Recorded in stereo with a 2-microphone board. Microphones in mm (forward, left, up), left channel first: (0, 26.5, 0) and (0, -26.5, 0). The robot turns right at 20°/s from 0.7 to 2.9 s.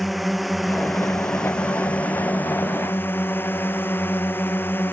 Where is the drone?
Straight ahead; by 4.9 s 40° left.